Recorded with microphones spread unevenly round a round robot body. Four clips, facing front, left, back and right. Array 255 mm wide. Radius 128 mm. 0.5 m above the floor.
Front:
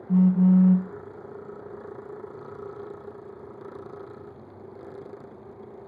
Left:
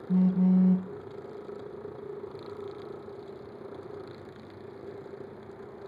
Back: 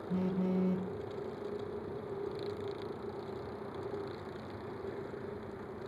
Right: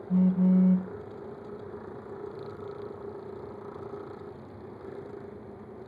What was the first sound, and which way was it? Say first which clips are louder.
A phone buzzing: even, front 14 dB; 35° left.